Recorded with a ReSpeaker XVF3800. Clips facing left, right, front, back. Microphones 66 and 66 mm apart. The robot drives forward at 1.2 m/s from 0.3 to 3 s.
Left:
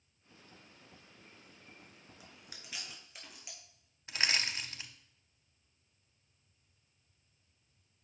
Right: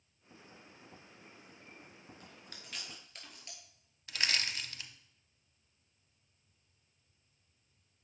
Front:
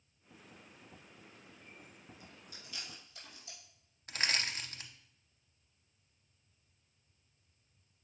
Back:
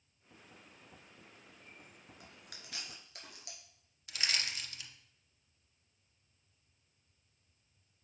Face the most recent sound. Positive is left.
turn(degrees=30)